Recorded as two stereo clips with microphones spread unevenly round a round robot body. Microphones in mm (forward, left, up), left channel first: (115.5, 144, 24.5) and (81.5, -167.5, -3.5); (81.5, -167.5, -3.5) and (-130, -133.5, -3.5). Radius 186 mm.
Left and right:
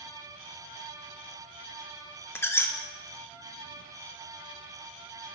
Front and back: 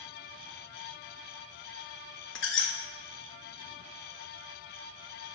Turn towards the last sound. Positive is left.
turn(degrees=5)